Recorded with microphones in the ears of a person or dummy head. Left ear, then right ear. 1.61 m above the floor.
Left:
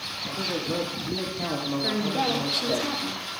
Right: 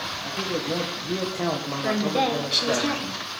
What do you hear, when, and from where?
0.2 s a man speaking: 45° right (ahead or behind), 1.7 m; by 2.8 s 85° right, 1.6 m
1.8 s a woman speaking: 20° right (ahead or behind), 1.4 m